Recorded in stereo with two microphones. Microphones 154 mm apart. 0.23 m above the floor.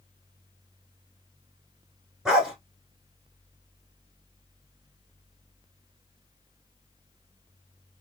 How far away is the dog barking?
About 1.0 m.